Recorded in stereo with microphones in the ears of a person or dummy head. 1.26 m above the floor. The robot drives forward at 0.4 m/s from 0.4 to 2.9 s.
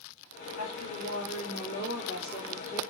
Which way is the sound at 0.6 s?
60° left (ahead or behind).